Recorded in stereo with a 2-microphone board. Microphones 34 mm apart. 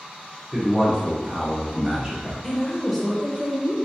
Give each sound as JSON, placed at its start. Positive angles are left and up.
{"t": 0.5, "sound": "a man speaking", "side_deg": -25, "distance_m": 1.3}
{"t": 2.4, "sound": "a woman speaking", "side_deg": -5, "distance_m": 1.1}